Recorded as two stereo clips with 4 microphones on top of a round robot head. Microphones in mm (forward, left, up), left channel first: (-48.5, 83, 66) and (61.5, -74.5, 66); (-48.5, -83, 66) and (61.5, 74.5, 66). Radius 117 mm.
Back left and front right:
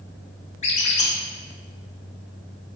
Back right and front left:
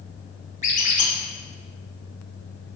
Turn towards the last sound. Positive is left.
turn(degrees=180)